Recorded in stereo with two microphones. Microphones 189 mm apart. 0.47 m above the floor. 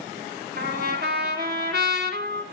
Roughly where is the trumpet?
Right.